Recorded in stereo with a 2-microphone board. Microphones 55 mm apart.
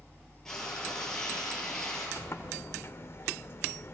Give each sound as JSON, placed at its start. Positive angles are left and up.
{"t": 0.5, "sound": "frying", "side_deg": 10, "distance_m": 7.0}
{"t": 2.2, "sound": "a sliding door", "side_deg": 50, "distance_m": 1.6}